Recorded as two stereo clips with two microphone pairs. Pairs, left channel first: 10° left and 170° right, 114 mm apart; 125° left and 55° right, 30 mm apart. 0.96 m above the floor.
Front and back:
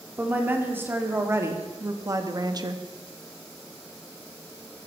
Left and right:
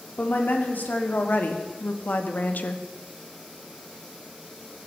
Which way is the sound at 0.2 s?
115° left.